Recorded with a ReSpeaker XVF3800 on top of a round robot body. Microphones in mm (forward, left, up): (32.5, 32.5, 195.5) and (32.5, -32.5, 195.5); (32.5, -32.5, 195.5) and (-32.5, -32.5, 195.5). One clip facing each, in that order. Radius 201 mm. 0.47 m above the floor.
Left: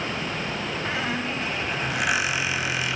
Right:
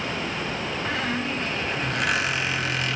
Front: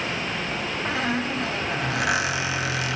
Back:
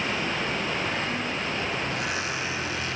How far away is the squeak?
About 1.4 m.